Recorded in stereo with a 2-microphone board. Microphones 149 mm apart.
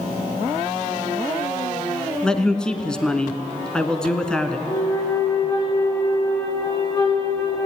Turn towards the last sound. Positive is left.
turn(degrees=20)  # may be behind; listen again after turning